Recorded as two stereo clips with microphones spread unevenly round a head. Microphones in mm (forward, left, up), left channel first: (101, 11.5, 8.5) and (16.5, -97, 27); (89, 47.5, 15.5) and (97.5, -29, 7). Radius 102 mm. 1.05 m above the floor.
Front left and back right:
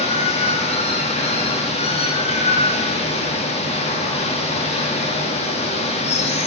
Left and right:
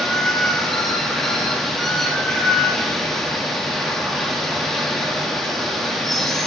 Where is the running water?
10° left, 1.6 m.